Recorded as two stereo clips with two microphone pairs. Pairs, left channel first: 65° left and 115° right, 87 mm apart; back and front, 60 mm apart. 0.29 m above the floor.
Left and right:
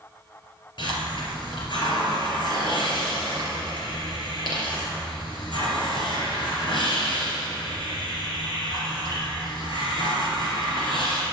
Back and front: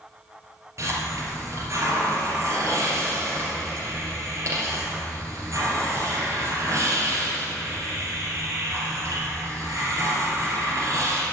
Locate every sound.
0.8 s a hiss: 35° left, 3.5 m